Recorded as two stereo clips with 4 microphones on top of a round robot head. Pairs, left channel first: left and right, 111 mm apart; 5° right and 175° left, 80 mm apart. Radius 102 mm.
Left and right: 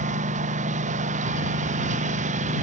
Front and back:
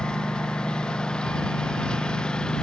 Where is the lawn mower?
90° right.